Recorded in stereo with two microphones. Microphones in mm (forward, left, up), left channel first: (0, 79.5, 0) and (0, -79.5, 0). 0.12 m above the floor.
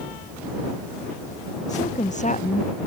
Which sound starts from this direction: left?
A woman speaking, at 1.7 s.